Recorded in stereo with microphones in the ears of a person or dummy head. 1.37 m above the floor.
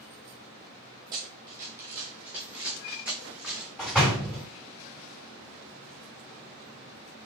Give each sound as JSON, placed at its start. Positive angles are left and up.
{"t": 1.1, "sound": "running footsteps", "side_deg": -20, "distance_m": 1.7}
{"t": 3.8, "sound": "a door slam", "side_deg": -5, "distance_m": 3.0}